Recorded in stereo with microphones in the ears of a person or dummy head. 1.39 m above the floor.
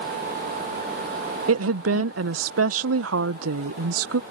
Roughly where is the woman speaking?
Right.